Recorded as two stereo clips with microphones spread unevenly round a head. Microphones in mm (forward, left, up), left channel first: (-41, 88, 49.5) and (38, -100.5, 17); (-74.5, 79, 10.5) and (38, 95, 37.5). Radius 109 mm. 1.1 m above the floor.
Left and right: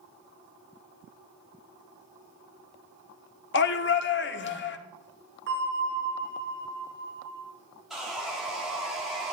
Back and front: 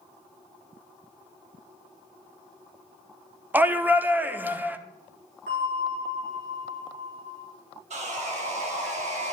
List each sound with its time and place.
3.5 s a shout: 90° left, 1.1 m
5.5 s a bell: 25° right, 4 m
7.9 s sawing: 20° left, 1.7 m